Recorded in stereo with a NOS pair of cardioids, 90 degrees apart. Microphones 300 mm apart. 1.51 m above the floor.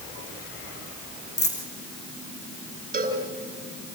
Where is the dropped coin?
35° left, 5.5 m.